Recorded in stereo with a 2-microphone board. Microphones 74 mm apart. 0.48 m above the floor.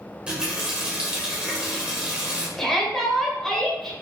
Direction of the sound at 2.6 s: 5° left (ahead or behind).